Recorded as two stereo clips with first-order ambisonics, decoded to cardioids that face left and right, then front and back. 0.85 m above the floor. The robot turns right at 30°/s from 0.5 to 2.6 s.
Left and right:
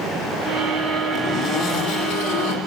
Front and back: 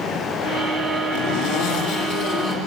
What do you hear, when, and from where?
1.1 s a zipper: 25° left, 8.5 m; by 2.6 s 70° left, 8.5 m